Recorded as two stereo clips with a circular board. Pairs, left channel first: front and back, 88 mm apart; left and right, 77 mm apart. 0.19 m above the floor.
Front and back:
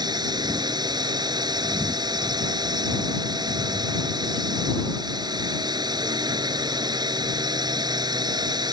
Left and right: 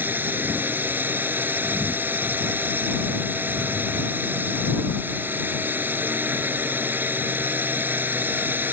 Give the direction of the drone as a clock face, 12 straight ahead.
5 o'clock.